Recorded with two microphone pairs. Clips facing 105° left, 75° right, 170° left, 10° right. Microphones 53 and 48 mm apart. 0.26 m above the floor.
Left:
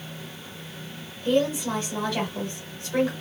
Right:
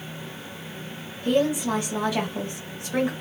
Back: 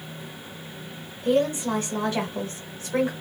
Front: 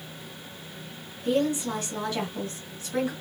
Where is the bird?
I don't hear a bird.